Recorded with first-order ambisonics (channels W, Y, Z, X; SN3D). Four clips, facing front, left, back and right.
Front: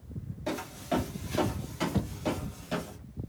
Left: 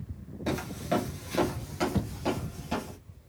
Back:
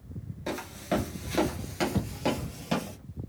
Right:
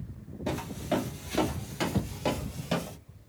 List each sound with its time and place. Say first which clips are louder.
0.5 s footsteps: left 1 dB, back 1 dB; 125° left, 1.3 m; by 3.0 s 145° right, 1.9 m